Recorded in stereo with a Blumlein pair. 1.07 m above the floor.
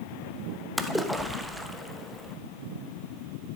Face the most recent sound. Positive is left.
turn(degrees=-5)